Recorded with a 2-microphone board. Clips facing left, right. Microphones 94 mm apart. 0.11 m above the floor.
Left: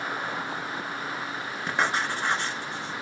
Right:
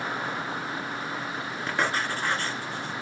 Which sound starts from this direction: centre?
Writing, at 1.7 s.